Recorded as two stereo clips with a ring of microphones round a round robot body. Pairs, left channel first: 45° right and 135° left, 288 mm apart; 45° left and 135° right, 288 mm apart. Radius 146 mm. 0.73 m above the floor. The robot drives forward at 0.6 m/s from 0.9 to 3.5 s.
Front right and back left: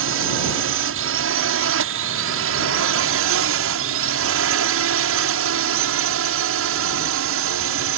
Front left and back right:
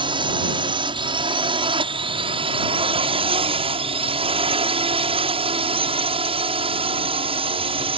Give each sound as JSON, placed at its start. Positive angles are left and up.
{"t": 0.0, "sound": "a drone", "azimuth_deg": 155}